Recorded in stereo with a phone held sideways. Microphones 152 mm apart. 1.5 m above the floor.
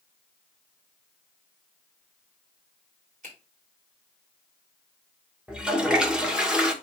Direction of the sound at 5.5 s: 5° right (ahead or behind).